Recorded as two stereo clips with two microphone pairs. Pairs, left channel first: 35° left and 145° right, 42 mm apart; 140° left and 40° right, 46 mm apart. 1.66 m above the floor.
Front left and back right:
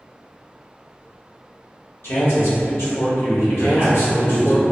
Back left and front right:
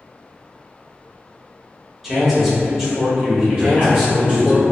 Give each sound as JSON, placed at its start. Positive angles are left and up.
{"t": 2.0, "sound": "a man speaking", "azimuth_deg": 40, "distance_m": 0.9}
{"t": 3.6, "sound": "a man speaking", "azimuth_deg": 25, "distance_m": 1.7}